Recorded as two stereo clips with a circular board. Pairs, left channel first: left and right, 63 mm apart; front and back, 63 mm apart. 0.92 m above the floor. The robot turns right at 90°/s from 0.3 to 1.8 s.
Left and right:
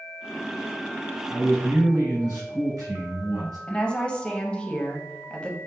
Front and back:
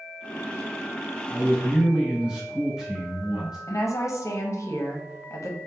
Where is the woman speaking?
20° left, 0.7 m.